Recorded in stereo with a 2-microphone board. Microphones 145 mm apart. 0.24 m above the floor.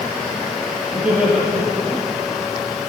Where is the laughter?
10° right (ahead or behind), 5 m.